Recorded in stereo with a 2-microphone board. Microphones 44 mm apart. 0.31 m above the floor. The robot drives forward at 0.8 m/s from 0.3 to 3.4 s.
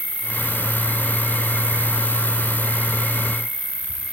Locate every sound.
0.0 s an insect: 40° right (ahead or behind), 2.0 m; by 4.1 s 45° right (ahead or behind), 1.8 m